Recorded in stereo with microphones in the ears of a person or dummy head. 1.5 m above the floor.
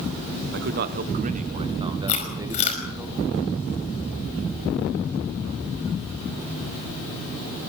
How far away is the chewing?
About 5 m.